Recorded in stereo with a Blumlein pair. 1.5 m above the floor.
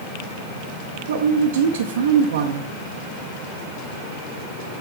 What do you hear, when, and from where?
1.1 s a woman speaking: 60° right, 0.7 m